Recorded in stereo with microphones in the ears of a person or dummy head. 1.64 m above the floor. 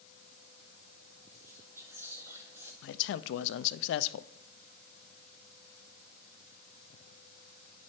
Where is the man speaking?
70° left (ahead or behind), 0.5 m.